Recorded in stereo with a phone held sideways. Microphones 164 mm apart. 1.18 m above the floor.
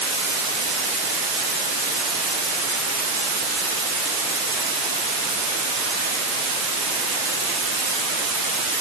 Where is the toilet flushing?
No toilet flushing in this recording.